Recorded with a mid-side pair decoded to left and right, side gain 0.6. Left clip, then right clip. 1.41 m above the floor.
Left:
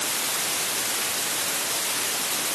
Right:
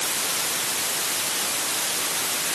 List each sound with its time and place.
Only background noise.